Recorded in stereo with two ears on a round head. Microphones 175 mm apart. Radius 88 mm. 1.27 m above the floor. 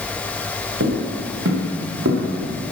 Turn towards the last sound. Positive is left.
turn(degrees=-70)  # may be behind; listen again after turning